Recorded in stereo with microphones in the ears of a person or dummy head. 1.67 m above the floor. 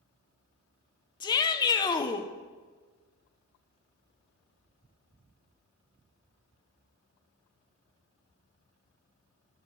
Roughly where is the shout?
Left.